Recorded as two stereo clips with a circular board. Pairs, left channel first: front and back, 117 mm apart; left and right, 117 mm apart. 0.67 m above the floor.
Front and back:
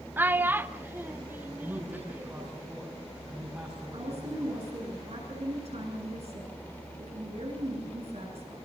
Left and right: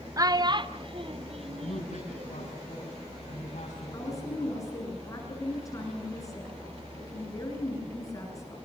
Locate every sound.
0.2 s a child speaking: 120° right, 0.8 m; by 2.5 s 105° right, 1.8 m
1.6 s a man speaking: 110° left, 6.5 m
3.9 s a woman speaking: 150° left, 10 m